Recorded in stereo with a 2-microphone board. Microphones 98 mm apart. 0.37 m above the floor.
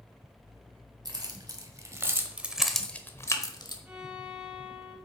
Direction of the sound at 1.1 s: 45° right (ahead or behind).